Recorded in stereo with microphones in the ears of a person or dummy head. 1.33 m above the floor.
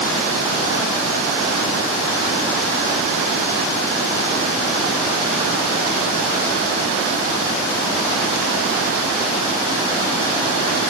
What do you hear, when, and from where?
Only background noise.